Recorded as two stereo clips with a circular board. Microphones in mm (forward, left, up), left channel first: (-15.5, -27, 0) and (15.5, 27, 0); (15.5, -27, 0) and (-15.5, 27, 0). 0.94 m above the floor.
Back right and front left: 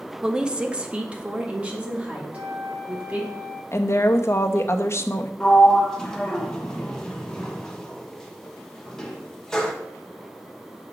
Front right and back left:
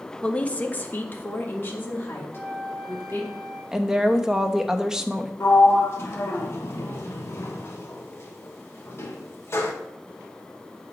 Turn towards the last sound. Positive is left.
turn(degrees=-45)